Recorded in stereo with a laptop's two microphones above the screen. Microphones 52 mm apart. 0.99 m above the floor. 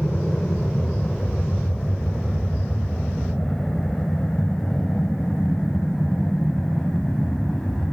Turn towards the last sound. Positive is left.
turn(degrees=5)  # may be behind; listen again after turning